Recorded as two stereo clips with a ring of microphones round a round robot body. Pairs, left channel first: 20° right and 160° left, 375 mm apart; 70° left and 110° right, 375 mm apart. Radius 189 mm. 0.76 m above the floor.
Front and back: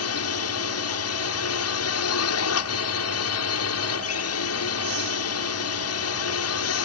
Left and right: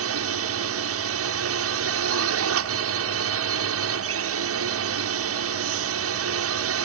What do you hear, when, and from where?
0.0 s a drone: 65° right